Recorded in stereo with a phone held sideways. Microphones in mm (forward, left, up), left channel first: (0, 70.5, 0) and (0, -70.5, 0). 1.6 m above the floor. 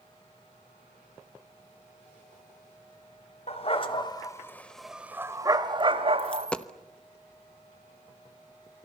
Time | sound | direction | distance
3.5 | a dog barking | 50° left (ahead or behind) | 1.9 m
6.2 | a dropped coin | 10° left (ahead or behind) | 1.0 m